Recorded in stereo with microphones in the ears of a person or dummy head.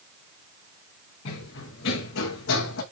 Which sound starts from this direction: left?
Running footsteps, at 1.2 s.